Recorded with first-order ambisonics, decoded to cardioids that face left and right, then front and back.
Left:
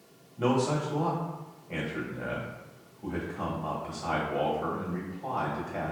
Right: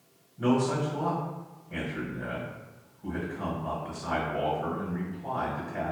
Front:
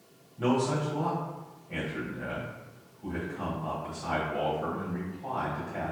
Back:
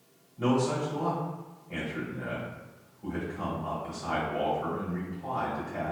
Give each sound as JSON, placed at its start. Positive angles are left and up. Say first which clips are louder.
{"t": 0.4, "sound": "a man speaking", "louder": "even, even", "azimuth_deg": 90, "distance_m": 1.1}